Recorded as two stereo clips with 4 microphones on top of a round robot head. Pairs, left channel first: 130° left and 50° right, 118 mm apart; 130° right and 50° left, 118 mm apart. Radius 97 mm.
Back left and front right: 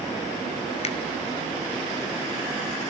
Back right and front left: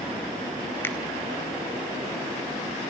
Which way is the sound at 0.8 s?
155° left.